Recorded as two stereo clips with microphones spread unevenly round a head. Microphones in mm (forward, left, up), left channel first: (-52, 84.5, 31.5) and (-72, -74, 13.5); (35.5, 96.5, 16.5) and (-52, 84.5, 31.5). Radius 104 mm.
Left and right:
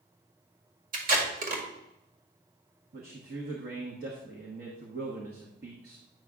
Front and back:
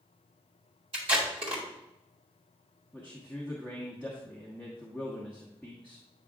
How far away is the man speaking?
About 1.1 m.